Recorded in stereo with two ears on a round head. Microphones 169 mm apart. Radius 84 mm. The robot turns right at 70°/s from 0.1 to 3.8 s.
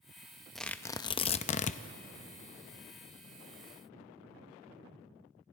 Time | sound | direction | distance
0.6 | tearing paper | straight ahead | 0.6 m